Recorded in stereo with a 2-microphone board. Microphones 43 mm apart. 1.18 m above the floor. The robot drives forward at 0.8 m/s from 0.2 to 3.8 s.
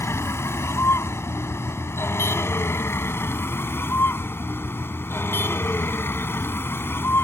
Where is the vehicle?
80° left; by 7.2 s 60° left (ahead or behind).